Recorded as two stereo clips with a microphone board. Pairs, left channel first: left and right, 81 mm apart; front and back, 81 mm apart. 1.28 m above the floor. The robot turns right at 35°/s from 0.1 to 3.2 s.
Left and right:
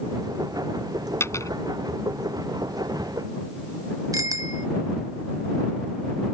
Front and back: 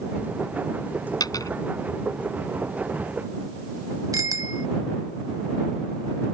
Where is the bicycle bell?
135° right.